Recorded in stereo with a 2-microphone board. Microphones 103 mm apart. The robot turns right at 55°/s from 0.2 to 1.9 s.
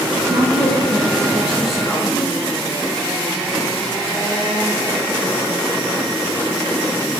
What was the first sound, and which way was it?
A woman speaking, 80° right.